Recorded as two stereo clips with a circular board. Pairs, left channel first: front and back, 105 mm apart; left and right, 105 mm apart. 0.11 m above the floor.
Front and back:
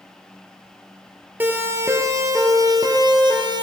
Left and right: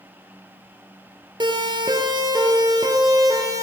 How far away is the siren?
About 2 m.